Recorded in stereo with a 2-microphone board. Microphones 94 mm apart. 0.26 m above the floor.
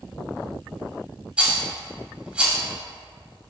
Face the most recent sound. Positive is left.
turn(degrees=-15)  # may be behind; listen again after turning